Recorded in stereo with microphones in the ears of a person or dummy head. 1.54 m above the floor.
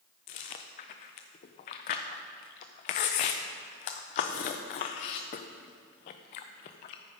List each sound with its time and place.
0.3 s chewing: 30° left (ahead or behind), 0.6 m